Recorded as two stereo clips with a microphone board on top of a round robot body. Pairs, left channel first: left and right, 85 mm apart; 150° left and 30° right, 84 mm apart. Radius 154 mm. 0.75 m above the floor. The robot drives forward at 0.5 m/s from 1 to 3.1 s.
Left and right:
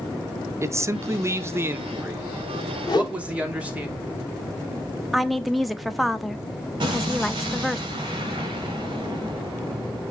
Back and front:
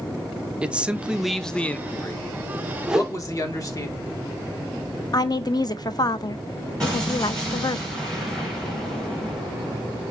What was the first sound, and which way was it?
A man speaking, 95° right.